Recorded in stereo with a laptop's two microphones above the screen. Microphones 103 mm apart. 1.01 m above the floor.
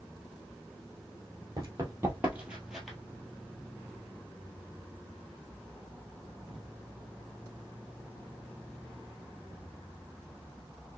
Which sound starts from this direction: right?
Running footsteps, at 1.6 s.